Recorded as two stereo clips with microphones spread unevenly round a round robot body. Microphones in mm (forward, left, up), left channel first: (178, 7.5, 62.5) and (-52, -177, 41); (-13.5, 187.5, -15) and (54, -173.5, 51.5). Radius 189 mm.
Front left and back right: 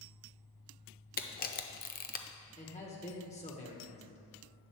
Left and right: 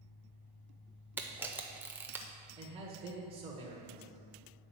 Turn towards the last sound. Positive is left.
turn(degrees=0)